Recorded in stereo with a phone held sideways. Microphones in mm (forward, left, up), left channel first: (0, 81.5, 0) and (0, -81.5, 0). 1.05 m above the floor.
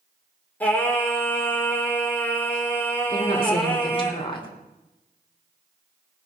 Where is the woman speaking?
30° left (ahead or behind), 3 m.